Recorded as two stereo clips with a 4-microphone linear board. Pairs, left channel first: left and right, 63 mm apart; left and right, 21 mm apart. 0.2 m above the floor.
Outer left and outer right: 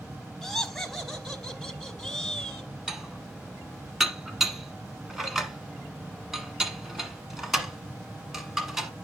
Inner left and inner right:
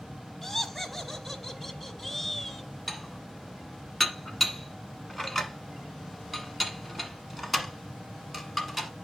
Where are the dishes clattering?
5° right (ahead or behind), 1.3 m.